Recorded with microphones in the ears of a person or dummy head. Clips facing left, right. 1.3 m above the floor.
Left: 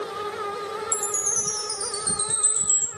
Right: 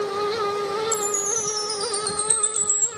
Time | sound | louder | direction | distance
0.9 | a chime | right 6 dB | 15° right (ahead or behind) | 0.8 m